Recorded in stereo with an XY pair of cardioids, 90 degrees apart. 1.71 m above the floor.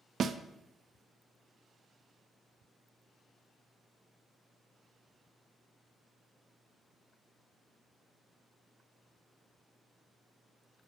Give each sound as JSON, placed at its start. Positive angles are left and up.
{"t": 0.2, "sound": "a snare drum", "azimuth_deg": -60, "distance_m": 0.5}